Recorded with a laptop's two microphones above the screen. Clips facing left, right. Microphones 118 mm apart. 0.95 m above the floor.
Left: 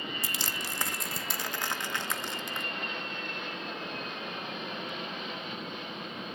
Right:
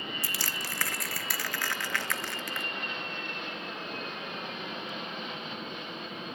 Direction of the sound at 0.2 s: 20° left (ahead or behind).